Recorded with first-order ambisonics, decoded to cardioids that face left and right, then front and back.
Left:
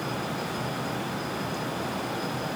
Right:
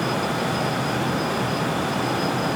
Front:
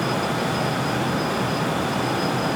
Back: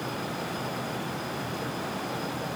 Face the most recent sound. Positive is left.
No sound to turn to.